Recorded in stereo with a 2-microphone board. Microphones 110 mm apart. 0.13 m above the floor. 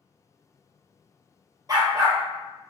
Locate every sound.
1.7 s a dog barking: 35° right (ahead or behind), 1.0 m